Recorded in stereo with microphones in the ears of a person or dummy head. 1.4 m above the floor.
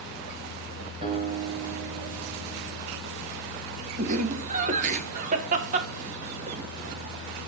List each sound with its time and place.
1.0 s a guitar: 35° right (ahead or behind), 4 m
4.0 s laughter: 45° right (ahead or behind), 1.0 m